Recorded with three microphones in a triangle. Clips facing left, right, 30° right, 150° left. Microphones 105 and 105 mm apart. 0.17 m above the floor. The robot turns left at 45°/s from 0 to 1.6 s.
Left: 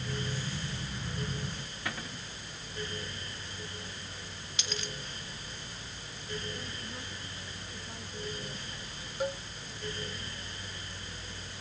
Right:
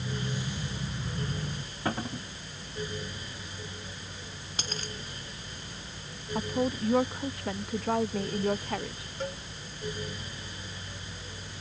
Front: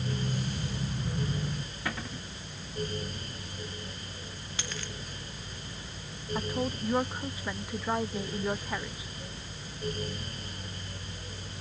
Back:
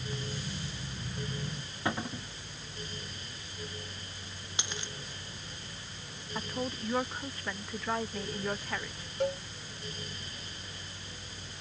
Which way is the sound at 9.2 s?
170° left.